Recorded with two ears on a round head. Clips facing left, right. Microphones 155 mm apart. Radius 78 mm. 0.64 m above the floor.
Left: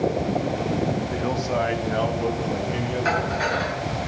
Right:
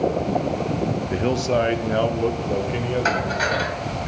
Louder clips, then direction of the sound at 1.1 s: Right 4 dB; 20° right (ahead or behind).